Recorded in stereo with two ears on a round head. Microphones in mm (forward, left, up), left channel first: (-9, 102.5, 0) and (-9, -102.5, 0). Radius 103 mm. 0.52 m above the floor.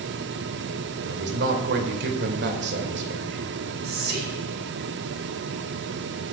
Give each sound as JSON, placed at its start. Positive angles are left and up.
{"t": 1.1, "sound": "a man speaking", "side_deg": -50, "distance_m": 2.0}
{"t": 3.8, "sound": "whispering", "side_deg": -45, "distance_m": 5.0}